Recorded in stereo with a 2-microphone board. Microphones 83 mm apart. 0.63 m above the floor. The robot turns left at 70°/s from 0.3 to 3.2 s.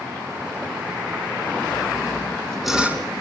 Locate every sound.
1.7 s sawing: 65° left, 1.8 m; by 3.0 s 25° right, 1.8 m